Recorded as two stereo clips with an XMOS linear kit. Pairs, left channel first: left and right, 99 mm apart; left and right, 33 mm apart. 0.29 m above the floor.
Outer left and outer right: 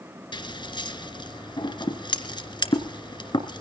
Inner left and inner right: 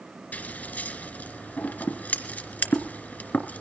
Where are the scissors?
55° left (ahead or behind), 1.9 m.